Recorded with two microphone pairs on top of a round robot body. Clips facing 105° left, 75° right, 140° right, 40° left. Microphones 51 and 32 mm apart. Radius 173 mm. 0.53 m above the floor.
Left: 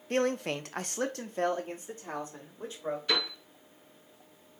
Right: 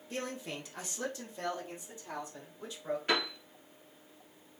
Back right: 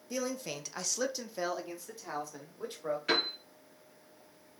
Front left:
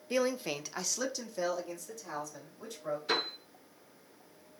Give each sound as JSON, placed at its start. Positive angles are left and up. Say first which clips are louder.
{"t": 0.1, "sound": "a man speaking", "louder": "left 10 dB, front left 5 dB", "azimuth_deg": 85, "distance_m": 0.9}
{"t": 3.1, "sound": "a piano", "louder": "right 1 dB, back right 2 dB", "azimuth_deg": -130, "distance_m": 2.5}